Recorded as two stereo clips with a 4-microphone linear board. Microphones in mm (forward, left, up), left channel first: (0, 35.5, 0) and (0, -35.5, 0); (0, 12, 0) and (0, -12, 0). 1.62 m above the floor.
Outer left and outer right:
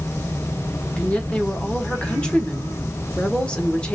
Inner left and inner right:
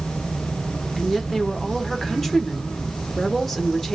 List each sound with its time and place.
1.0 s a woman speaking: 10° left (ahead or behind), 1.4 m